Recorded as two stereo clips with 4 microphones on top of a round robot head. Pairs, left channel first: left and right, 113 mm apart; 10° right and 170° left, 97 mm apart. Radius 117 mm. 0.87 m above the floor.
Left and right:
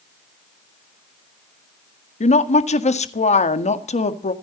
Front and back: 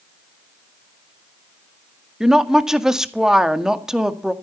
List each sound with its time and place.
2.2 s a woman speaking: 85° left, 1.9 m